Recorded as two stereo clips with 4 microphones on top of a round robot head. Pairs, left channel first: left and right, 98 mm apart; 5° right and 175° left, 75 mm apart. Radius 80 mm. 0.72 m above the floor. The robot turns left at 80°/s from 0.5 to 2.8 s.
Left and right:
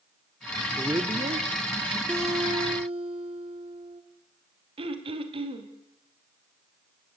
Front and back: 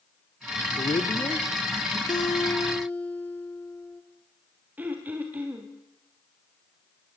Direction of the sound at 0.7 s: 15° right.